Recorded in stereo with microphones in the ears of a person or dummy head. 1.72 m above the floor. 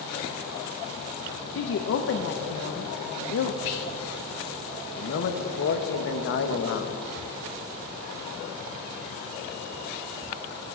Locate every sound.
1.6 s a woman speaking: 70° left (ahead or behind), 0.6 m
3.6 s whispering: 55° left (ahead or behind), 0.8 m
5.0 s a man speaking: 70° left (ahead or behind), 1.1 m